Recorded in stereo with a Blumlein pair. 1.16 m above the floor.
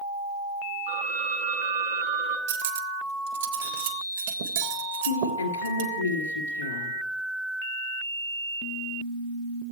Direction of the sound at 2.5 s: 55° right.